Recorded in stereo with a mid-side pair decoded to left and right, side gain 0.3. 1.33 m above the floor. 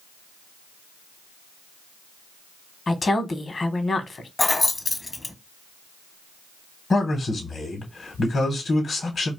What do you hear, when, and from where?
2.9 s a woman speaking: 50° left, 0.8 m
4.4 s keys jangling: 30° left, 0.7 m
6.9 s a man speaking: 55° left, 0.8 m